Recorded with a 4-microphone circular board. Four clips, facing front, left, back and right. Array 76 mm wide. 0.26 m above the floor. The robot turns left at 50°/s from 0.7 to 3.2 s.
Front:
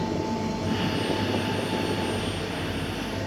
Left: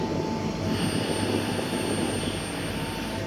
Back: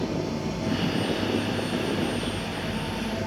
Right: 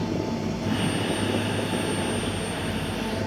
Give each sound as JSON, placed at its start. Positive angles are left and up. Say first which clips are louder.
{"t": 0.0, "sound": "running water", "louder": "even, front 1 dB", "azimuth_deg": 30, "distance_m": 5.0}